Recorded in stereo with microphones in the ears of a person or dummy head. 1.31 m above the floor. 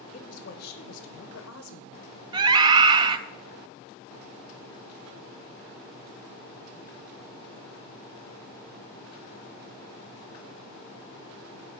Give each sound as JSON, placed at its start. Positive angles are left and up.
{"t": 0.1, "sound": "a woman speaking", "side_deg": 30, "distance_m": 0.9}
{"t": 2.3, "sound": "a scream", "side_deg": -25, "distance_m": 0.6}